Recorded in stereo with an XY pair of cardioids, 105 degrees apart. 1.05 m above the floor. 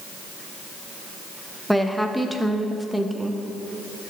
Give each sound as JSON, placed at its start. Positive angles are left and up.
{"t": 1.7, "sound": "a woman speaking", "azimuth_deg": 0, "distance_m": 0.6}